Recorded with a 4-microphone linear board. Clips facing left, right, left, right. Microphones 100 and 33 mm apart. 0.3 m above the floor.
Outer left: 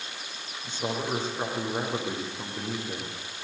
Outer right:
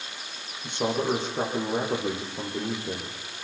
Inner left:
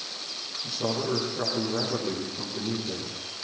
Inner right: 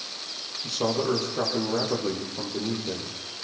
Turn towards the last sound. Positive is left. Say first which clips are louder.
# outer right 5 dB, inner right 3 dB
turn(degrees=-65)  # may be behind; listen again after turning